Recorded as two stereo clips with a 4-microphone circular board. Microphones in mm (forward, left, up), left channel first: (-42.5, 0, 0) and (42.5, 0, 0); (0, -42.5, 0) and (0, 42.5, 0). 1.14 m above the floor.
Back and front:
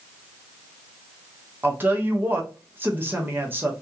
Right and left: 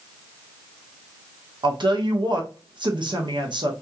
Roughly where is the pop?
No pop in this recording.